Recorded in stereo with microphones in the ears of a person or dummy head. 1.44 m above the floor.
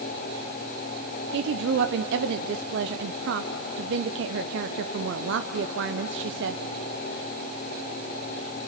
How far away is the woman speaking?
About 0.7 m.